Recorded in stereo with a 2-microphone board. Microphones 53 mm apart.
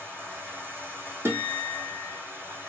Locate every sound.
0.0 s running water: 45° right (ahead or behind), 2 m
1.2 s a guitar: 50° right (ahead or behind), 2 m